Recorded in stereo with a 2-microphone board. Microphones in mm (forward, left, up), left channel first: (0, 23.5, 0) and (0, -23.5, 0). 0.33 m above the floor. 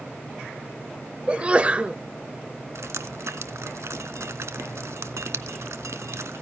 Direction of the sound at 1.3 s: 25° right (ahead or behind).